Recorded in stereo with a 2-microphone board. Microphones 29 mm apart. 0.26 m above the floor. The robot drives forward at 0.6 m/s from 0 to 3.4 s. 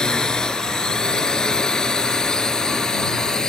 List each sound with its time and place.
0.0 s a drone: 25° left (ahead or behind); by 3.5 s 20° left (ahead or behind)